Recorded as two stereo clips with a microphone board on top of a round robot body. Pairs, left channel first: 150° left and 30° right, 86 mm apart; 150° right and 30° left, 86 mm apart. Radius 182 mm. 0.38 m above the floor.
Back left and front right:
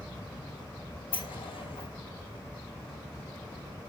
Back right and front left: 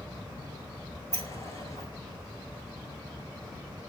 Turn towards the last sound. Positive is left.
turn(degrees=155)